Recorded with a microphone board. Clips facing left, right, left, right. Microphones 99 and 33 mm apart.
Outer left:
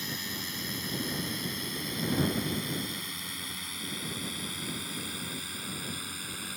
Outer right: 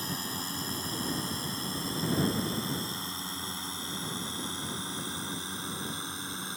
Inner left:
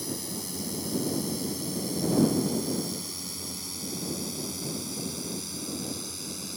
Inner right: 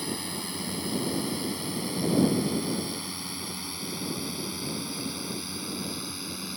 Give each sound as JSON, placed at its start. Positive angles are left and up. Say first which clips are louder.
{"t": 0.0, "sound": "a drone", "louder": "outer right 2 dB, inner right 2 dB", "side_deg": -35}